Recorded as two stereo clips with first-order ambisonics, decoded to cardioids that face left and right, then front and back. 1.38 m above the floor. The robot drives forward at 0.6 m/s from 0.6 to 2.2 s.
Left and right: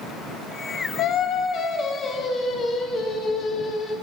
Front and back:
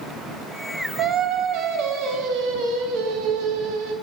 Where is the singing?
130° left, 0.7 m; by 3.9 s 155° left, 1.3 m.